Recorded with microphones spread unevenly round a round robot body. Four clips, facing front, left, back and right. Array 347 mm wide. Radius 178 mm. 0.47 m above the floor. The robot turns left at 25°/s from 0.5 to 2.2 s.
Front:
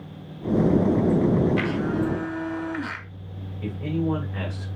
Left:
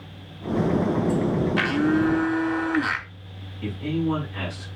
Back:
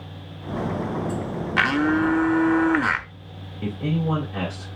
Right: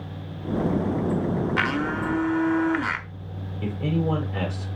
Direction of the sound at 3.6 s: 135° right.